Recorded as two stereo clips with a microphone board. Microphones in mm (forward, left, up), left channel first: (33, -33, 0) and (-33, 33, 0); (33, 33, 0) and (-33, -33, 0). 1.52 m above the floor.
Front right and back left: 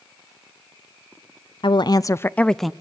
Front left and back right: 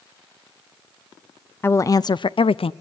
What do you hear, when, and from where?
1.6 s a woman speaking: 20° right, 0.5 m; by 2.7 s 45° left, 0.5 m